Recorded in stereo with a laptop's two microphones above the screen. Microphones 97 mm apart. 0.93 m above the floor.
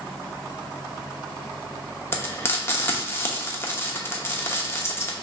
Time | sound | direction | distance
2.1 | frying | 25° left (ahead or behind) | 0.9 m